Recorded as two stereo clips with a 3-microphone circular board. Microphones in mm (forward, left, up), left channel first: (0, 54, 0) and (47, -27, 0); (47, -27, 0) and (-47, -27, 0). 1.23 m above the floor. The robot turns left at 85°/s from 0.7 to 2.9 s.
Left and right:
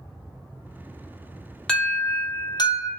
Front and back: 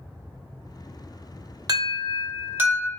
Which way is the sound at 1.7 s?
160° right.